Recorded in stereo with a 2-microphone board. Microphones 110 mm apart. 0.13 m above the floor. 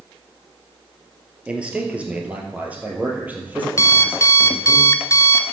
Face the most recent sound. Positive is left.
turn(degrees=30)  # may be behind; listen again after turning